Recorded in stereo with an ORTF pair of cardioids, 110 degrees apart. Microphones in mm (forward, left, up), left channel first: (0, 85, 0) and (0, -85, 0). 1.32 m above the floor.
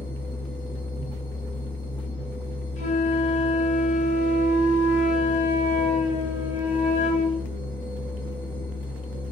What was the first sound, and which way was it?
A machine running, 25° left.